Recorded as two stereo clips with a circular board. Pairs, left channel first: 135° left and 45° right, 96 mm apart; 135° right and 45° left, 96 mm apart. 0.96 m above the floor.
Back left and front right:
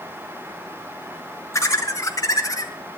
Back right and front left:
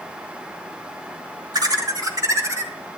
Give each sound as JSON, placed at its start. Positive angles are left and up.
{"t": 1.5, "sound": "laughter", "azimuth_deg": 85, "distance_m": 2.0}